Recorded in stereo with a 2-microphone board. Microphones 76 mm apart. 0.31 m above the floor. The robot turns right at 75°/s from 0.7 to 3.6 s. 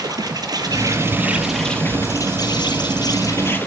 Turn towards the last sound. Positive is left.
turn(degrees=155)